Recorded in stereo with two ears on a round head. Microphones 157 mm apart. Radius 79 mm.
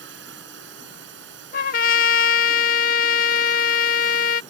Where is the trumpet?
55° left (ahead or behind).